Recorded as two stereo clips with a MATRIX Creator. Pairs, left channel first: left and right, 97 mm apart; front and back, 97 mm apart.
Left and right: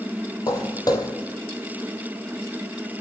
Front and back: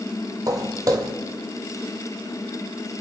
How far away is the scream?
No scream in this recording.